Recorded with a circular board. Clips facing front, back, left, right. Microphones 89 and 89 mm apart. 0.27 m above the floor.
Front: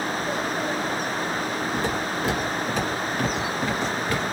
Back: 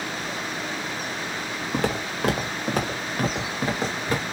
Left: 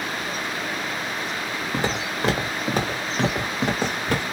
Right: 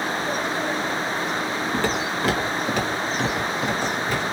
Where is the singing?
I don't hear singing.